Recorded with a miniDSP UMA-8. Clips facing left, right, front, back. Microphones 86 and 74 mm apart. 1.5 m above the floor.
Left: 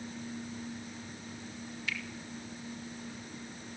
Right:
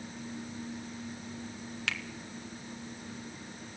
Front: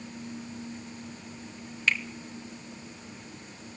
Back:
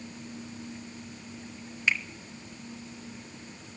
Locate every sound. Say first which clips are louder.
1.9 s a finger snap: right 2 dB, even; 100° right, 1.8 m